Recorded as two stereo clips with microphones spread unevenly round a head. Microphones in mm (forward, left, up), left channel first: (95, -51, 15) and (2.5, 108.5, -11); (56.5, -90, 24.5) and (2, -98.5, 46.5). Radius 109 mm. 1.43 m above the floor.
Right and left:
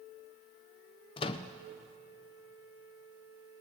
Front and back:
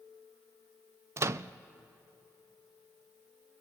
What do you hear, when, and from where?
1.2 s a microwave: 130° right, 0.5 m